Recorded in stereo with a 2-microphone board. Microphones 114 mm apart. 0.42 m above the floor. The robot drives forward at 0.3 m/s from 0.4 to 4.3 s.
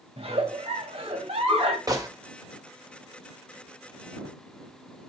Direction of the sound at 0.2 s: 65° right (ahead or behind).